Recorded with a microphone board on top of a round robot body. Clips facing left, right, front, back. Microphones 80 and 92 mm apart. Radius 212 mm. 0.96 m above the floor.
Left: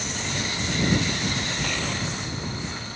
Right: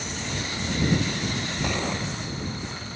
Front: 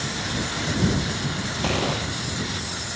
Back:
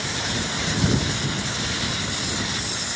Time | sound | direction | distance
1.6 | a gunshot | 20° right | ?